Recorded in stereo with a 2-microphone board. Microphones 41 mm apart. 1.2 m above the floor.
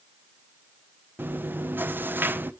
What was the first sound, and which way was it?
Chewing, 60° right (ahead or behind).